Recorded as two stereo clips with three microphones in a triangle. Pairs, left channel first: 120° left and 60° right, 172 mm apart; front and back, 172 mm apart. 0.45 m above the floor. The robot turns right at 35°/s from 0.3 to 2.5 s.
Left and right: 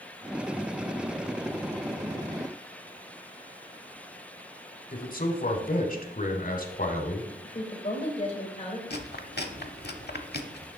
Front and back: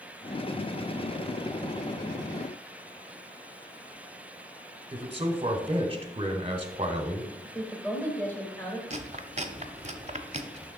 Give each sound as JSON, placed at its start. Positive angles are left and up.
{"t": 4.9, "sound": "a man speaking", "azimuth_deg": 130, "distance_m": 1.5}
{"t": 7.4, "sound": "a woman speaking", "azimuth_deg": 75, "distance_m": 2.0}
{"t": 8.9, "sound": "chewing", "azimuth_deg": 135, "distance_m": 0.8}